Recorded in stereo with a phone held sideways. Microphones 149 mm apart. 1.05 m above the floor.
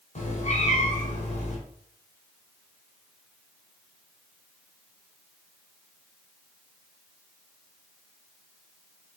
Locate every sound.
0.1 s a cat meowing: 50° left (ahead or behind), 1.4 m